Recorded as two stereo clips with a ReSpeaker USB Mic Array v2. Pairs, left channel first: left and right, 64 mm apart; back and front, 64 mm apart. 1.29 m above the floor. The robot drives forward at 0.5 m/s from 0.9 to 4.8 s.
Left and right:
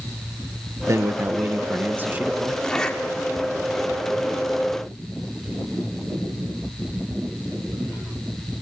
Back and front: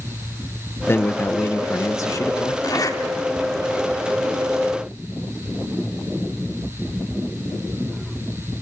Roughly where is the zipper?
Behind.